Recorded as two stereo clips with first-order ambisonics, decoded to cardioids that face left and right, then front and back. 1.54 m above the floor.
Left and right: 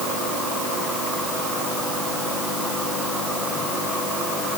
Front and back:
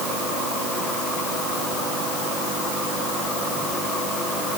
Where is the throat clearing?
I don't hear throat clearing.